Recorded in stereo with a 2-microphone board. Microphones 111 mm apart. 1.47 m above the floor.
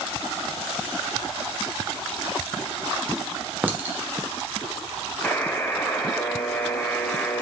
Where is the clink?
15° right (ahead or behind), 0.6 m.